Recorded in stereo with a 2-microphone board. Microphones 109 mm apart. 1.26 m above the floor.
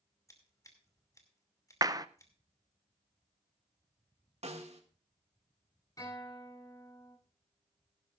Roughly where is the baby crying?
I don't hear a baby crying.